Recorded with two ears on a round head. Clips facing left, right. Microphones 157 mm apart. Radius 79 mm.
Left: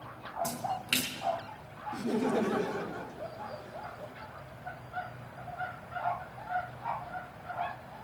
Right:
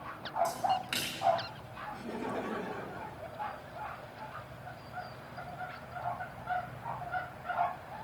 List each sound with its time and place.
0.4 s a splash: 35° left (ahead or behind), 4 m
1.9 s laughter: 55° left (ahead or behind), 1.2 m